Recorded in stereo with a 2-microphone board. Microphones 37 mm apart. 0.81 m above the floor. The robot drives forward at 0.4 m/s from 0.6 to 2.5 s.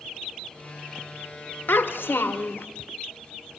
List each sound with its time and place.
1.7 s a child speaking: 70° left (ahead or behind), 1.3 m; by 2.7 s 85° left, 1.3 m